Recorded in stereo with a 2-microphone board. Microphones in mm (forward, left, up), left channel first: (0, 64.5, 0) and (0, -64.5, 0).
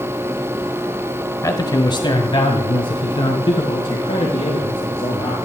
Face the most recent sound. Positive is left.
turn(degrees=45)  # may be behind; listen again after turning